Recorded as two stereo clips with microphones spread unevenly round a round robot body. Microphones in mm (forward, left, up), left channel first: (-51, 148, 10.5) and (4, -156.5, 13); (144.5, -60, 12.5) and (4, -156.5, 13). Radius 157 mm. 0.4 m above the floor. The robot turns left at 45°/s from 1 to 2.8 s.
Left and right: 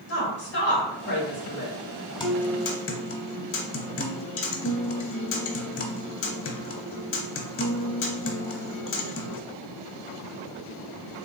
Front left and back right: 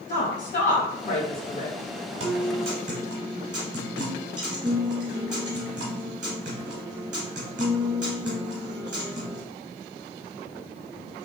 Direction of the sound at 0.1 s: 70° left.